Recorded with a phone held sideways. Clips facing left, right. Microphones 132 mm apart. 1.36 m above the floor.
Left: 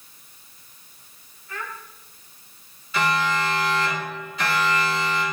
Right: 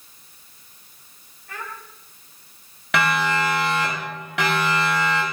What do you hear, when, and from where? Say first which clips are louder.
1.5 s a child speaking: left 1 dB; 70° right (ahead or behind), 6 m
2.9 s a siren: right 1 dB; 85° right, 10 m; by 5.2 s 90° right, 10.5 m